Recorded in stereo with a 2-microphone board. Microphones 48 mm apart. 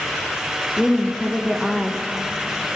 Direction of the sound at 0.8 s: 5° left (ahead or behind).